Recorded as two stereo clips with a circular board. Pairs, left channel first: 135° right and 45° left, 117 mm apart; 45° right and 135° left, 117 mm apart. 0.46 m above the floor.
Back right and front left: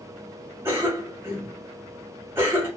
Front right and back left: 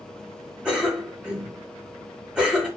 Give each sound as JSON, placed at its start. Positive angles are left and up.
{"t": 0.7, "sound": "a cough", "azimuth_deg": 65, "distance_m": 1.0}